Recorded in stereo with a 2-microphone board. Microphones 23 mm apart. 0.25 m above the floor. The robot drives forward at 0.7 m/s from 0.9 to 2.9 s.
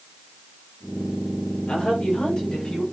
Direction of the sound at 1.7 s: 40° left (ahead or behind).